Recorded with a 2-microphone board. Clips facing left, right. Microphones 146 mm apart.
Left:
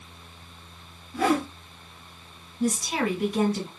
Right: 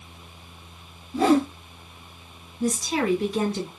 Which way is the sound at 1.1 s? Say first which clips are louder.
Right 5 dB; 30° right (ahead or behind).